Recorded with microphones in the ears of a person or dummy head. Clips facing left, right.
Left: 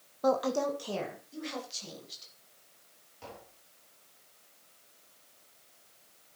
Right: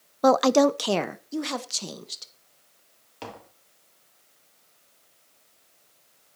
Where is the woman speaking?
70° right (ahead or behind), 0.5 m.